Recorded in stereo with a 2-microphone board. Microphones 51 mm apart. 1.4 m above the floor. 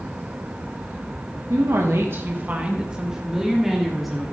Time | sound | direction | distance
1.5 | a woman speaking | 80° right | 1.1 m